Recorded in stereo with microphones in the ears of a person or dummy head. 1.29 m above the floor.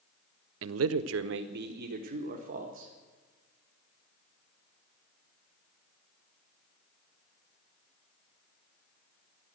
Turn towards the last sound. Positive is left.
turn(degrees=-40)  # may be behind; listen again after turning